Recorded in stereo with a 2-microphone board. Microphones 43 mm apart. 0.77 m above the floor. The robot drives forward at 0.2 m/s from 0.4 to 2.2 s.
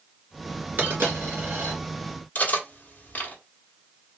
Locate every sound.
0.8 s a dropped coin: 50° right (ahead or behind), 2 m; by 1.8 s 45° right (ahead or behind), 2.5 m
2.4 s cutlery clinking: 40° left (ahead or behind), 1.0 m